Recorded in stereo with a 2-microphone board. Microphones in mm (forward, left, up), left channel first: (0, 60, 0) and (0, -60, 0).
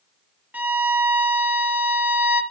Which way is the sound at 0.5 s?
15° right (ahead or behind).